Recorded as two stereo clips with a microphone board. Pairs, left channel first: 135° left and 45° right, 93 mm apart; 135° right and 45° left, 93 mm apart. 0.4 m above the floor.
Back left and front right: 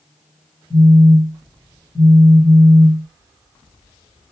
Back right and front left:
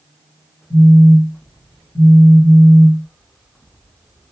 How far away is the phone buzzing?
About 2 m.